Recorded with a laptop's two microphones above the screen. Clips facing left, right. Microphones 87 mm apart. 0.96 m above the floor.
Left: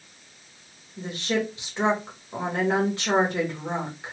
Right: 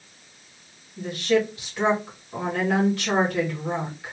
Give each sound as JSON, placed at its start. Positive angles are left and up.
{"t": 1.0, "sound": "a woman speaking", "side_deg": 25, "distance_m": 1.4}